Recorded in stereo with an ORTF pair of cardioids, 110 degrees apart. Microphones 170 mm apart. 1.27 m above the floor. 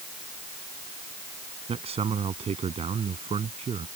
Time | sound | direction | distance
1.7 | a man speaking | 35° right | ?